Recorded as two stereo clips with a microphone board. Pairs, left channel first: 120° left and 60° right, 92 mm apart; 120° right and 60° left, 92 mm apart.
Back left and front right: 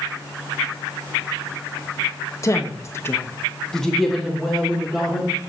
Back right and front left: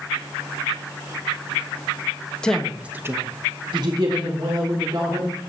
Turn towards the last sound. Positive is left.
turn(degrees=20)